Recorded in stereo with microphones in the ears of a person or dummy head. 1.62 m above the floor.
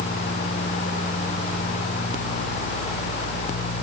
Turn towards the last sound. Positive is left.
No sound to turn to.